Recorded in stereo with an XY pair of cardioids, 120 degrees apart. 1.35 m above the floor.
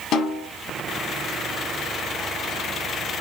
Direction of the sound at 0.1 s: 65° left.